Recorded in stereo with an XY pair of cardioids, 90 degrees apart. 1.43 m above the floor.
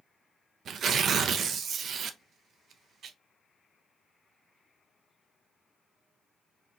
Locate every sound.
0.7 s tearing paper: 65° right, 0.6 m